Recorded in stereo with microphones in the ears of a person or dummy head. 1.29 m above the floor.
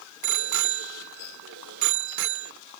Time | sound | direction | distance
0.2 | a bicycle bell | 70° right (ahead or behind) | ?